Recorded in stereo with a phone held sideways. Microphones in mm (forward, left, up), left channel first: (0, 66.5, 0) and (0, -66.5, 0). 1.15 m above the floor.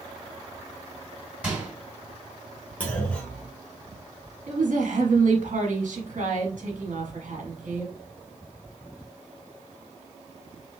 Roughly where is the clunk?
Centre.